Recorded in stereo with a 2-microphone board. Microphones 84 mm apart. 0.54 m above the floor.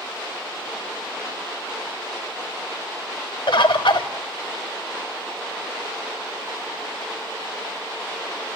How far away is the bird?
About 1.5 m.